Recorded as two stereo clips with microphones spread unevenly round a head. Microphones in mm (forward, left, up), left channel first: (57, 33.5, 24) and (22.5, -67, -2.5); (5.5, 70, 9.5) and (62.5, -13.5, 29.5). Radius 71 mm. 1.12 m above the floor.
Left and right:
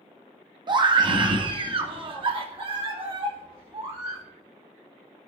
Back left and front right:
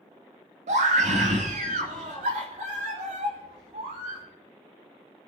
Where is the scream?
70° right, 1.8 m; by 4.2 s 80° right, 4 m.